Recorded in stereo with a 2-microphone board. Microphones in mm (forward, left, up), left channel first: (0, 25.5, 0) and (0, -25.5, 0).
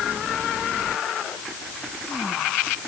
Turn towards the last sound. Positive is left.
No sound to turn to.